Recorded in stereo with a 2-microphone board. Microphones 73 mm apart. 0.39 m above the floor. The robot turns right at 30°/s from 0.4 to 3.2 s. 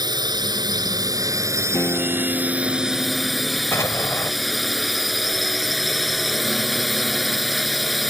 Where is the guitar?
145° left; by 3.6 s 175° right.